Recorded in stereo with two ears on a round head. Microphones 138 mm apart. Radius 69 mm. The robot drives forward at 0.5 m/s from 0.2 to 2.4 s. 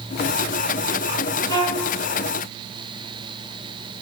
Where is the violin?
20° left (ahead or behind), 0.8 m; by 1.9 s 30° left (ahead or behind), 0.6 m.